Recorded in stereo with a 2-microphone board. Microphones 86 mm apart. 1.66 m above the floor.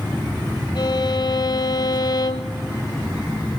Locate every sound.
0.8 s a violin: 55° left (ahead or behind), 1.0 m